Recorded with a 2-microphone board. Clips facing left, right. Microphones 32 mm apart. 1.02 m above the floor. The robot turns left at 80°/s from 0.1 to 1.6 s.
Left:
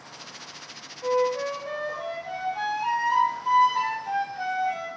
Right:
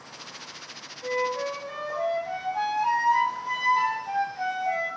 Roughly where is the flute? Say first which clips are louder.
Left 3 dB; behind left.